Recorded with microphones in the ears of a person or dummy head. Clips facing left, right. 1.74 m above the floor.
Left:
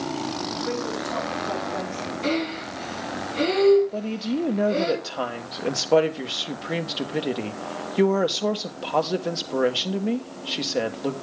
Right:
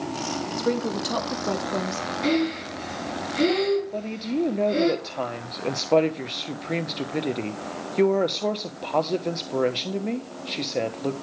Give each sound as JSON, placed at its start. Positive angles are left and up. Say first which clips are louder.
{"t": 0.6, "sound": "a woman speaking", "louder": "right 5 dB", "side_deg": -50, "distance_m": 1.1}
{"t": 2.2, "sound": "breathing", "louder": "right 3 dB", "side_deg": -15, "distance_m": 5.5}
{"t": 3.9, "sound": "a woman speaking", "louder": "left 1 dB", "side_deg": 10, "distance_m": 1.1}